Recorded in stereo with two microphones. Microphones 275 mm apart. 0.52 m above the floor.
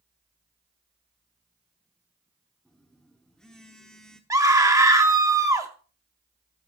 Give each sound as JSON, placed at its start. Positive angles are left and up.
{"t": 2.6, "sound": "a phone buzzing", "side_deg": 0, "distance_m": 1.2}
{"t": 4.3, "sound": "a scream", "side_deg": -15, "distance_m": 0.7}